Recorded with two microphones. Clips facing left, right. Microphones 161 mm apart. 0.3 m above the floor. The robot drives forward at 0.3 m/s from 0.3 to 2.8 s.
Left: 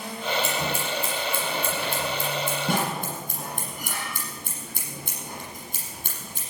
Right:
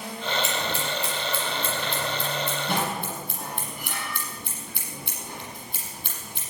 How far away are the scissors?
About 6 m.